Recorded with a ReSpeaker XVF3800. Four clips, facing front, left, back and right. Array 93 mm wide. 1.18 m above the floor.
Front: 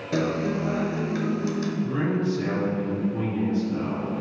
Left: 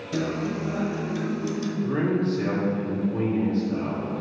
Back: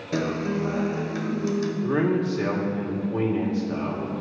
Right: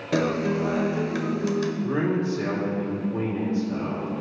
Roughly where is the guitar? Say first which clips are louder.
Right 4 dB, front 1 dB; right.